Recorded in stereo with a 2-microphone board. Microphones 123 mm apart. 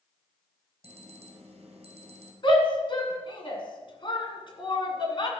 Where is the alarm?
55° right (ahead or behind), 2.5 m.